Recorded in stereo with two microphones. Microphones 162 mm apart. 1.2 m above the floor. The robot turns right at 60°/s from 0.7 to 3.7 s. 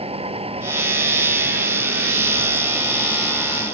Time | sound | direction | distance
0.0 | a vehicle | 40° right (ahead or behind) | ?